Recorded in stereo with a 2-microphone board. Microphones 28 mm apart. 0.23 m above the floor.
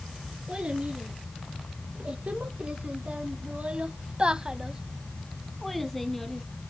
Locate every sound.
0.5 s a child speaking: 45° right (ahead or behind), 2.5 m; by 6.5 s 15° left (ahead or behind), 1.4 m